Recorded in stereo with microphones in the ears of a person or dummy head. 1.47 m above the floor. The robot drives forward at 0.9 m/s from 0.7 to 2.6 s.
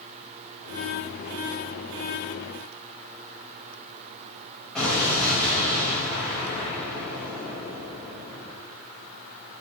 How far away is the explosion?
About 4 m.